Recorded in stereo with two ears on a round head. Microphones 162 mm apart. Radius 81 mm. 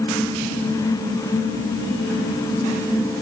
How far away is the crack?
I don't hear a crack.